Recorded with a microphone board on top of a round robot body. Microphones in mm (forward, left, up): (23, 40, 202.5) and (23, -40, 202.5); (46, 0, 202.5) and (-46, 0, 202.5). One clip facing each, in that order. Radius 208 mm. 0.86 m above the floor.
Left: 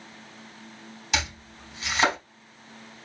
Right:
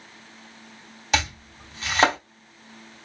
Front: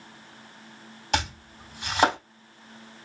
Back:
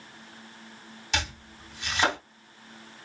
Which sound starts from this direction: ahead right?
Chopping, at 1.1 s.